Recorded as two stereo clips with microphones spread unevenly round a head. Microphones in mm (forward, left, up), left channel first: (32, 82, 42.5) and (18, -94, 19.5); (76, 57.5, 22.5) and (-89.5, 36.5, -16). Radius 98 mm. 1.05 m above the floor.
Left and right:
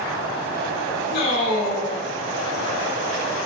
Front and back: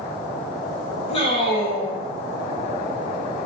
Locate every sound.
1.1 s a man speaking: 65° left, 1.1 m